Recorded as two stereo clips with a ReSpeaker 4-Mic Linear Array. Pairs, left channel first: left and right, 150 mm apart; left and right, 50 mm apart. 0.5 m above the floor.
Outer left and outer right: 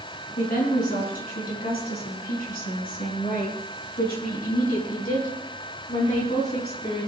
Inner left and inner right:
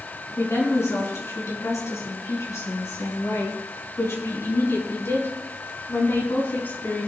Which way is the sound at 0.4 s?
75° left (ahead or behind).